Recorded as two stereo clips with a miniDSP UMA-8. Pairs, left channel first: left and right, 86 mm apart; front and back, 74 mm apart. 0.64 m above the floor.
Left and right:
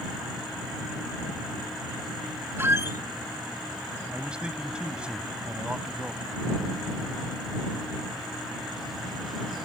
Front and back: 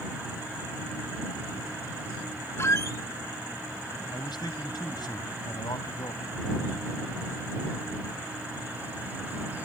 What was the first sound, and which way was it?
A squeak, 35° right.